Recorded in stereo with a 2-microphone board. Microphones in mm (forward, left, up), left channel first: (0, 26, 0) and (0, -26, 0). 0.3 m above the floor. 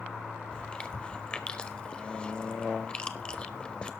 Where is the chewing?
20° left (ahead or behind), 0.8 m.